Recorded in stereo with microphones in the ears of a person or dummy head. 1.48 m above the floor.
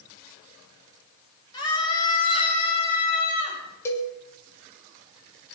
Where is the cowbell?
15° left (ahead or behind), 2.5 m.